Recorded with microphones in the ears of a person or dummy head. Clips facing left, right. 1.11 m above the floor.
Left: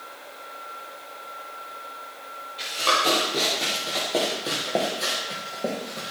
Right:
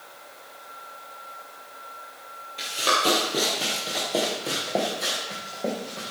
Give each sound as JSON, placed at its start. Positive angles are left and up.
{"t": 2.6, "sound": "running footsteps", "side_deg": -20, "distance_m": 1.8}